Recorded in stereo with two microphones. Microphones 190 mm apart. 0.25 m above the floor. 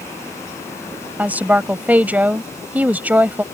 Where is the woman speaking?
10° right (ahead or behind).